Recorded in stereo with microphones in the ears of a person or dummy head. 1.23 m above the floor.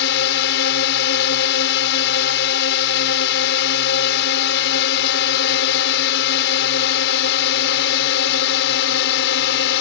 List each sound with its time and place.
0.0 s a drone: 65° left (ahead or behind)